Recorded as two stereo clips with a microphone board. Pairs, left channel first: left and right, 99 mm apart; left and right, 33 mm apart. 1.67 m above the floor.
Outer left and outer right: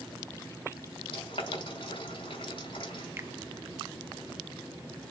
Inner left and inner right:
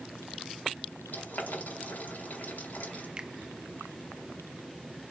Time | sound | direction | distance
1.1 | boiling | 65° left (ahead or behind) | 4 m
3.2 | a finger snap | 25° right (ahead or behind) | 1.0 m